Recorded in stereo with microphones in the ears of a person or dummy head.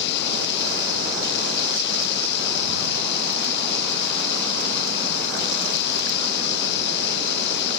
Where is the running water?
60° left (ahead or behind).